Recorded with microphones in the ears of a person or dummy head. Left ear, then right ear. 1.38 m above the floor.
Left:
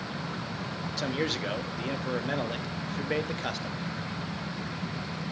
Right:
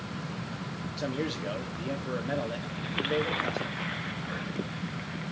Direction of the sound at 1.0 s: 25° left (ahead or behind).